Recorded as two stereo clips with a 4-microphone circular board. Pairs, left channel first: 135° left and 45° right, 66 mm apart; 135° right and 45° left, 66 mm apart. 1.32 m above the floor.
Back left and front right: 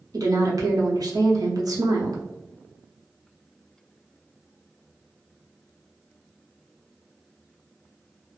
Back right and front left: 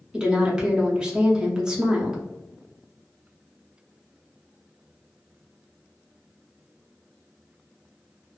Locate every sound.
0.1 s a woman speaking: 30° right, 0.9 m